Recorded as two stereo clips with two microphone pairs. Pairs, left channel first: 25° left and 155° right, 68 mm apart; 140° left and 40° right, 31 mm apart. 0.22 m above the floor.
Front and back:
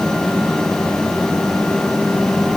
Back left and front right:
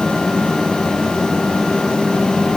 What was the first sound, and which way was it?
Only background noise.